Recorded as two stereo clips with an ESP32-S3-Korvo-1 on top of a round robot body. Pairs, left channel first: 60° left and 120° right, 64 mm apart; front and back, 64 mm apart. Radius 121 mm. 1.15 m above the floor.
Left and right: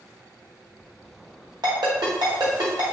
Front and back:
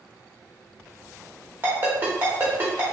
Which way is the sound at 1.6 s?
125° right.